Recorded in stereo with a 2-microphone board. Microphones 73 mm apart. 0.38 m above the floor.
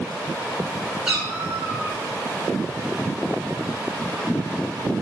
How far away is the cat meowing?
About 1.8 m.